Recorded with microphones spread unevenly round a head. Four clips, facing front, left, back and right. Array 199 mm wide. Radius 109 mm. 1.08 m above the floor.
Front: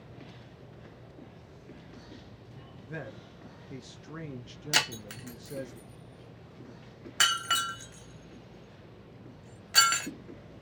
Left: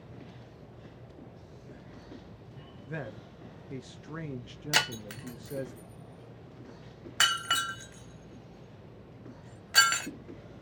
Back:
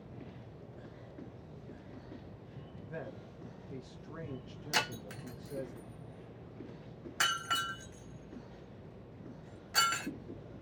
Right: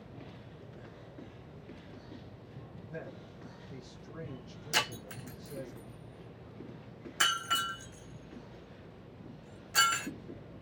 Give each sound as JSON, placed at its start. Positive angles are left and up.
{"t": 2.9, "sound": "a man speaking", "azimuth_deg": 40, "distance_m": 0.5}
{"t": 4.7, "sound": "breaking glass", "azimuth_deg": 20, "distance_m": 2.0}